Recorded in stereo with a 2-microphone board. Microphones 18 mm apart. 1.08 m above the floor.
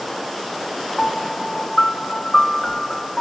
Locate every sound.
1.0 s a piano: 30° left (ahead or behind), 0.6 m